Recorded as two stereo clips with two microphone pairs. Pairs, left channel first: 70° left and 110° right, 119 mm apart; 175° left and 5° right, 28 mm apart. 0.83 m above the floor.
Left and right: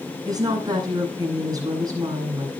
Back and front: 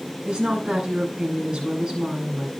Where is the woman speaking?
50° right, 10 m.